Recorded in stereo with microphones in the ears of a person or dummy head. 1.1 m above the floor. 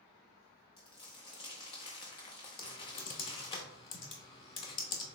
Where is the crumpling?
25° left (ahead or behind), 0.6 m.